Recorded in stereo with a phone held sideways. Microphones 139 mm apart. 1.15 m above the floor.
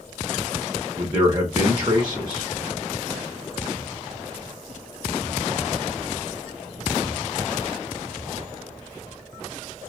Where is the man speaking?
30° right (ahead or behind), 0.6 m.